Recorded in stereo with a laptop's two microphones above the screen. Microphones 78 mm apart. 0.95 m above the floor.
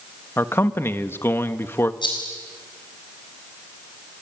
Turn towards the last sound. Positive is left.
turn(degrees=75)  # may be behind; listen again after turning